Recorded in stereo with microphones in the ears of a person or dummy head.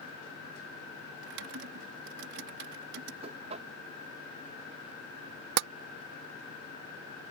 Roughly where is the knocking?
Right.